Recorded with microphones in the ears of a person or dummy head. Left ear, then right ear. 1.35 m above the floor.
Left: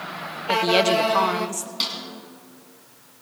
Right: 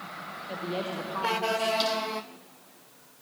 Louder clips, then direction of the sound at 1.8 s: Left 1 dB; 10° left (ahead or behind).